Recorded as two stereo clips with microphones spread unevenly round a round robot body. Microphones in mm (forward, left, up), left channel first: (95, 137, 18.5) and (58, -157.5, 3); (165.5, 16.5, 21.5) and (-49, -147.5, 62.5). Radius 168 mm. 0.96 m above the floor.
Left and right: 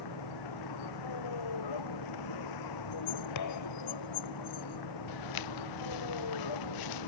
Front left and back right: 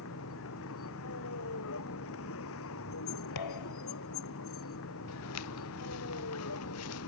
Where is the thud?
60° left.